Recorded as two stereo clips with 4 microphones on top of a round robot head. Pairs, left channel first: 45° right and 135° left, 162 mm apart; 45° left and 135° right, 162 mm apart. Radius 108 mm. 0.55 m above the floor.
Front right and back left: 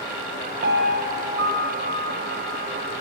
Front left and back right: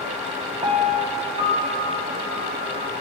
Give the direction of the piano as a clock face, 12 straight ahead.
7 o'clock.